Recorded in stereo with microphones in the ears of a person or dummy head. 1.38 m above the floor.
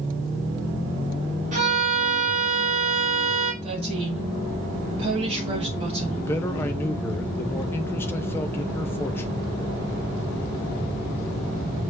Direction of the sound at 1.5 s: 40° right (ahead or behind).